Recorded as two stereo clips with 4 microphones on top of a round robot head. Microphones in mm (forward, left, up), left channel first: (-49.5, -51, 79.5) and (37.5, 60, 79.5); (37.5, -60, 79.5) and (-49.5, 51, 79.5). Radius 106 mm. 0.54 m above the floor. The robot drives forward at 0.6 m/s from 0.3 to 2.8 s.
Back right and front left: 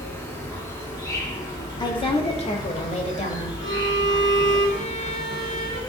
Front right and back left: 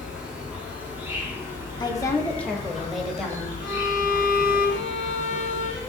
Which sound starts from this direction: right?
A woman speaking, at 1.8 s.